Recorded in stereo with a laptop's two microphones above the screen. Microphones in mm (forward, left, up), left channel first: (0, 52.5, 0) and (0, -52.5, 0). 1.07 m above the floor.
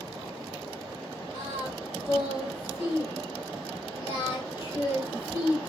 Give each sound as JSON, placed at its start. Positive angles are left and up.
{"t": 1.3, "sound": "singing", "side_deg": 50, "distance_m": 3.0}